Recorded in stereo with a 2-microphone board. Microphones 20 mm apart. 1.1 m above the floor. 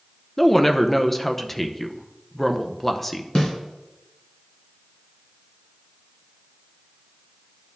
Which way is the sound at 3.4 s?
30° left (ahead or behind).